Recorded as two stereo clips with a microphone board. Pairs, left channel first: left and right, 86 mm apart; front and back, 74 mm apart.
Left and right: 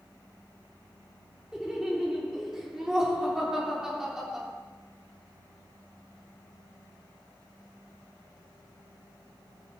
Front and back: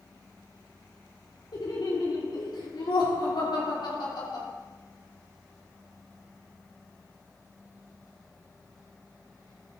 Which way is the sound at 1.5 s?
5° right.